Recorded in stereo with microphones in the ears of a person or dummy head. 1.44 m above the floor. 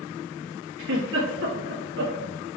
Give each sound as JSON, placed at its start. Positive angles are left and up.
{"t": 0.8, "sound": "a giggle", "side_deg": -70, "distance_m": 1.8}